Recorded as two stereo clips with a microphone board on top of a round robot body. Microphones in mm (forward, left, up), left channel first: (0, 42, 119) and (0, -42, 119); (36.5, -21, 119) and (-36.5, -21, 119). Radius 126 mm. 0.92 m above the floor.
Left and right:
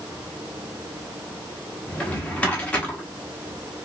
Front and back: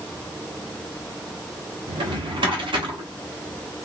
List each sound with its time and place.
1.9 s a drawer: 165° left, 0.9 m